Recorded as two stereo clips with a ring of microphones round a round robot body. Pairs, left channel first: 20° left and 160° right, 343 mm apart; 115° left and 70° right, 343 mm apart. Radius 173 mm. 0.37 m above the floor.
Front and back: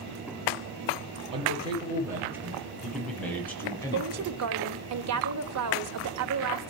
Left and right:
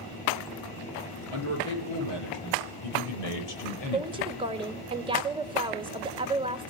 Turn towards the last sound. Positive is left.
turn(degrees=-140)